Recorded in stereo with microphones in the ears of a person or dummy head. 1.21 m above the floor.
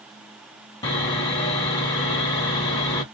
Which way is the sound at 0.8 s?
25° left (ahead or behind).